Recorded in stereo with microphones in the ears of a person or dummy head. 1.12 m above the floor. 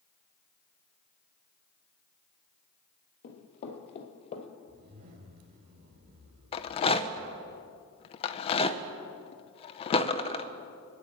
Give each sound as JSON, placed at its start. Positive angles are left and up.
{"t": 3.2, "sound": "running footsteps", "side_deg": 50, "distance_m": 1.7}
{"t": 4.7, "sound": "a zipper", "side_deg": -50, "distance_m": 2.0}
{"t": 6.5, "sound": "a rattle", "side_deg": 30, "distance_m": 0.6}